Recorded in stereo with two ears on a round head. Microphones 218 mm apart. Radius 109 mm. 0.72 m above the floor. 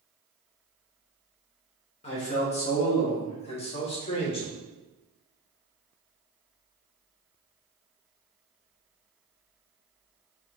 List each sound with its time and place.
2.0 s a man speaking: 25° left (ahead or behind), 0.9 m